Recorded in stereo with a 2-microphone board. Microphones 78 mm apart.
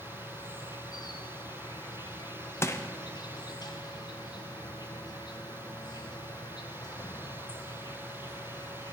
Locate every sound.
0.0 s an insect: 65° left (ahead or behind), 0.7 m
2.6 s crushing: 40° left (ahead or behind), 0.6 m